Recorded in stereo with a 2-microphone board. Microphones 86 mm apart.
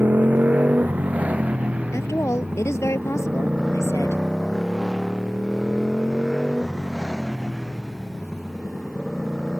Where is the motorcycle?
20° right (ahead or behind); by 9.6 s centre (ahead or behind).